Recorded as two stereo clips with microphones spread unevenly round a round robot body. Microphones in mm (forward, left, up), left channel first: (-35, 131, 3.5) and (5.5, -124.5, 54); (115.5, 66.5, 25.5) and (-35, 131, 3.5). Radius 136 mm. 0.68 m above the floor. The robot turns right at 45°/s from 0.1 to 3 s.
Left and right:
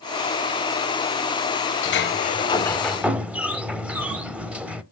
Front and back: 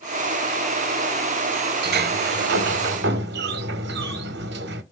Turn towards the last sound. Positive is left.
turn(degrees=-165)